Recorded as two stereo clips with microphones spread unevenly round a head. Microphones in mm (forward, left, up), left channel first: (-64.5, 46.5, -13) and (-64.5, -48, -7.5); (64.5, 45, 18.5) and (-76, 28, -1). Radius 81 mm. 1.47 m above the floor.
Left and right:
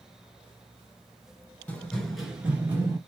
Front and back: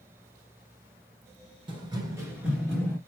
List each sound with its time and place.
1.7 s running footsteps: 155° left, 1.6 m; by 3.0 s 50° right, 1.7 m